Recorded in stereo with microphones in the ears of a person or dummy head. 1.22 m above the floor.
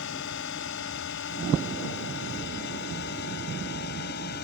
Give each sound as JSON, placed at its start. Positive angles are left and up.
{"t": 0.0, "sound": "a drone", "side_deg": 60}